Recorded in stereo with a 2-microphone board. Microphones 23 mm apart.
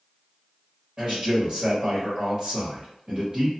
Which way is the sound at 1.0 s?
35° right (ahead or behind).